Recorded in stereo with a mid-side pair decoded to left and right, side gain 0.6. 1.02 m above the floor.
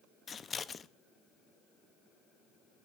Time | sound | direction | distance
0.3 | scissors | 30° left | 0.6 m